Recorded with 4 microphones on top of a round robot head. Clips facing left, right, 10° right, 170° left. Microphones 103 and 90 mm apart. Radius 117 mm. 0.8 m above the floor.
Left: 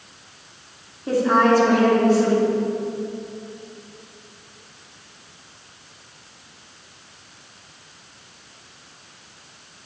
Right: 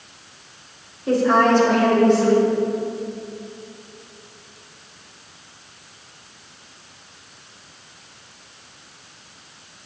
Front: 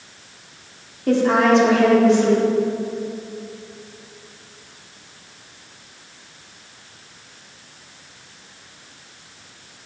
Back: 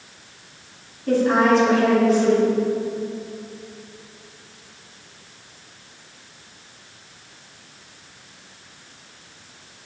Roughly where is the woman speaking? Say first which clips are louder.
Right 1 dB, front 1 dB; ahead.